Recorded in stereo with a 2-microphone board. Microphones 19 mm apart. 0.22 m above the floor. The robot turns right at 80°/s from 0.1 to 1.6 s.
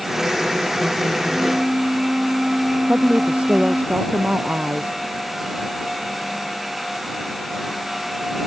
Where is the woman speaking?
75° right (ahead or behind).